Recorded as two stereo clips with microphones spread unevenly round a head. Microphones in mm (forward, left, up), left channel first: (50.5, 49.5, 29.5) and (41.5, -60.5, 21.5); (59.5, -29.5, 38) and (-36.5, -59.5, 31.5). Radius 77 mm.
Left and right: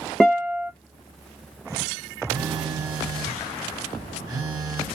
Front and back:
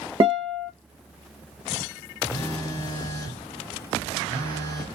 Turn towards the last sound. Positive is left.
turn(degrees=-35)